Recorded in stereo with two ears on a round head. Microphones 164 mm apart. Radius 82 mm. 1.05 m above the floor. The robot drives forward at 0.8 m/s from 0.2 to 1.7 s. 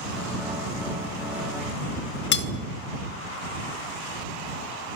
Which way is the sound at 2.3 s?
65° left (ahead or behind).